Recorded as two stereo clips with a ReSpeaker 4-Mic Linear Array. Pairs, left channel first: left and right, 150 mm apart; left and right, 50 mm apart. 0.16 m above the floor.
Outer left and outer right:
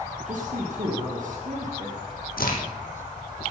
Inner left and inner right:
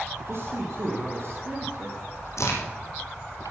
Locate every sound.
0.3 s a man speaking: 55° right (ahead or behind), 2.5 m
2.4 s a crack: 75° left (ahead or behind), 2.5 m